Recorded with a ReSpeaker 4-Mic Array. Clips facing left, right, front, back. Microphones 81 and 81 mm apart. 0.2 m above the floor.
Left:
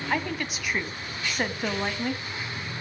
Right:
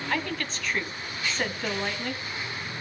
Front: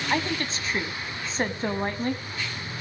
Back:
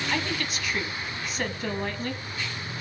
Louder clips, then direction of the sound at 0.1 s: Left 2 dB, front 5 dB; 25° left.